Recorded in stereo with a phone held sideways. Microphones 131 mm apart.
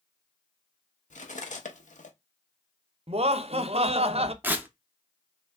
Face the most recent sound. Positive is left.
turn(degrees=-15)  # may be behind; listen again after turning